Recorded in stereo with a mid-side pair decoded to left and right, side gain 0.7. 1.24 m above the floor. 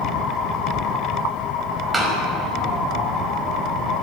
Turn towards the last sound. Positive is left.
turn(degrees=-10)